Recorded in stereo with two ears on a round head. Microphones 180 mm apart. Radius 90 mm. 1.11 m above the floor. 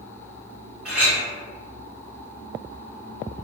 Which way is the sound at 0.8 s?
5° right (ahead or behind).